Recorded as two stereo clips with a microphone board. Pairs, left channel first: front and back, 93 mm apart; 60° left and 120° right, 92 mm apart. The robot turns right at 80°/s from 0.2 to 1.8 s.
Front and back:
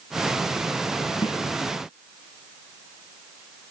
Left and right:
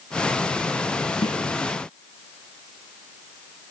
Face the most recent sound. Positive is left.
turn(degrees=80)